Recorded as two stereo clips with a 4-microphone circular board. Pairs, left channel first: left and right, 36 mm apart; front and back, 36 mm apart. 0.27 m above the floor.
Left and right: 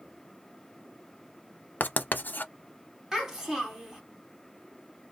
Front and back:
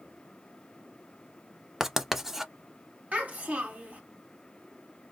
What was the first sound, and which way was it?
Writing, 105° left.